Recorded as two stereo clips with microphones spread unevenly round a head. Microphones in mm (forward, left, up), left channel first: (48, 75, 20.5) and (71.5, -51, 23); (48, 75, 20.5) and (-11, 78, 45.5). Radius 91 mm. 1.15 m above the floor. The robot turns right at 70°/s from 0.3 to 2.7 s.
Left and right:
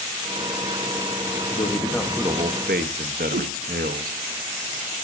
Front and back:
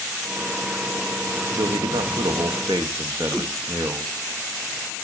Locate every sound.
1.5 s a man speaking: 155° left, 1.0 m; by 4.2 s 120° right, 1.0 m
3.3 s a whoosh: 80° right, 0.7 m